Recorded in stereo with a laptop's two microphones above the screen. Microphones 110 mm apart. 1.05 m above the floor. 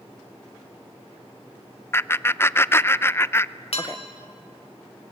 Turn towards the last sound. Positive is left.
turn(degrees=60)  # may be behind; listen again after turning